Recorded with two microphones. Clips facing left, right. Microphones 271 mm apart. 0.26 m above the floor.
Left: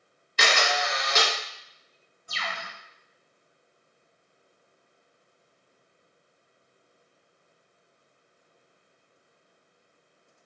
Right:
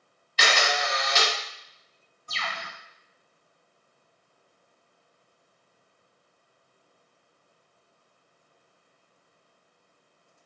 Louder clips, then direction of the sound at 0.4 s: Even; 55° left (ahead or behind).